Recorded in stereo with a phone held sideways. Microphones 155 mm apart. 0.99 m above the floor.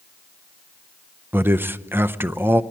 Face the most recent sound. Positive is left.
turn(degrees=-15)  # may be behind; listen again after turning